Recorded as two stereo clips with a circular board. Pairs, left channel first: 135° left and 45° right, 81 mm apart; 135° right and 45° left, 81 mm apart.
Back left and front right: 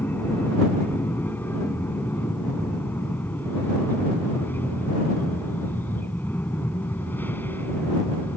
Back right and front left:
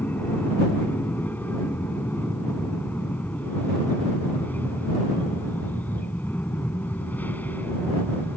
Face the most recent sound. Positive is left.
turn(degrees=175)